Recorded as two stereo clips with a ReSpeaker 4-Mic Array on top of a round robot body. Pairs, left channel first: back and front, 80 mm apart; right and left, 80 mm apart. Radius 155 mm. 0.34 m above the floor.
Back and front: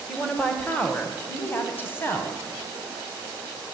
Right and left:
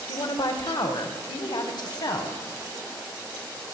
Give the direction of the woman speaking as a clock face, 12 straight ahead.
3 o'clock.